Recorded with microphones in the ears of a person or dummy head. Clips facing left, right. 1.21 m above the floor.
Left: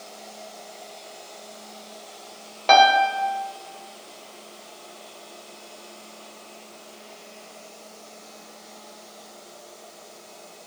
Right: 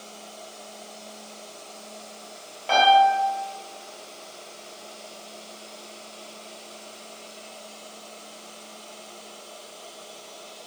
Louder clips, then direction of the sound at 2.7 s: Left 1 dB; 65° left (ahead or behind).